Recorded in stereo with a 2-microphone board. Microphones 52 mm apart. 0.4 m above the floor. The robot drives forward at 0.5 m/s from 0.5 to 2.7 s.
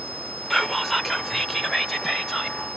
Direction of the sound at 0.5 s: Centre (ahead or behind).